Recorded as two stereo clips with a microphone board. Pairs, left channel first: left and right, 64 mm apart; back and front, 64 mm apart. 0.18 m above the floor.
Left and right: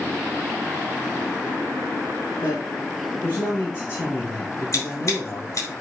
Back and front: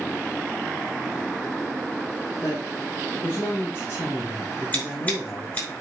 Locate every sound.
2.4 s a man speaking: 130° left, 3.5 m
4.7 s scissors: 120° left, 5 m